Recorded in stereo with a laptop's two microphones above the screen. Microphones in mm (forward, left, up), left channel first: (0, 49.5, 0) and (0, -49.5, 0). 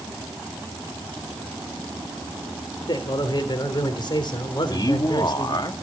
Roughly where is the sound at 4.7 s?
Left.